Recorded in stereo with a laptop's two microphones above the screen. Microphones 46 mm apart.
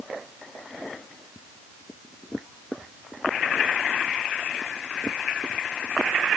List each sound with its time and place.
Only background noise.